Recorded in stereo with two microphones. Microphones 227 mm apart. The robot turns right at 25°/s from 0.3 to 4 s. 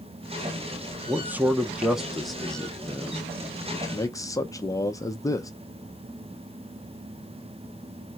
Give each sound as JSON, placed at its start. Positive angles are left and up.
{"t": 1.1, "sound": "a man speaking", "side_deg": -10, "distance_m": 0.6}